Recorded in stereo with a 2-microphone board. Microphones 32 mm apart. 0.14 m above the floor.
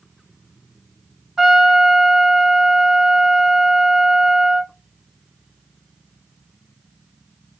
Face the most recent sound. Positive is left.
turn(degrees=-10)  # may be behind; listen again after turning